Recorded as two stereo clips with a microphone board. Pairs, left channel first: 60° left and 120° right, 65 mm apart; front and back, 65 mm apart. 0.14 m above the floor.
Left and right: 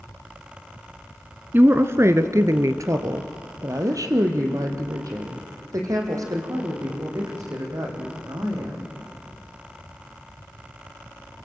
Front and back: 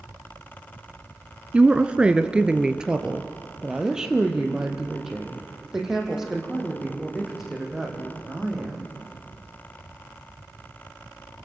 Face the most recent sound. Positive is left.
turn(degrees=-95)